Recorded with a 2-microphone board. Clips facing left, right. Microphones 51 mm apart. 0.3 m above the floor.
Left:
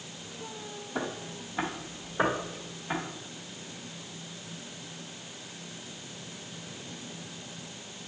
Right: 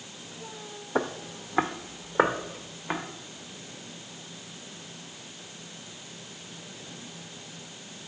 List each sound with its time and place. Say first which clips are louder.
0.9 s footsteps: right 6 dB; 55° right (ahead or behind), 0.8 m; by 3.0 s 40° right (ahead or behind), 2 m